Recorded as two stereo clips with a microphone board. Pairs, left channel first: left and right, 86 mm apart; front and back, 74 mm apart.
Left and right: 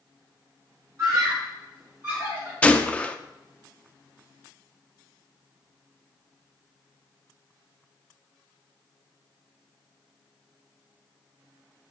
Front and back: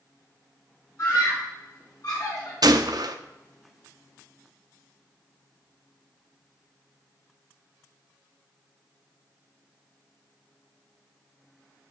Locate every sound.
1.0 s a scream: 45° right, 2 m; by 2.5 s 35° right, 3.5 m
2.6 s a gunshot: 165° left, 0.6 m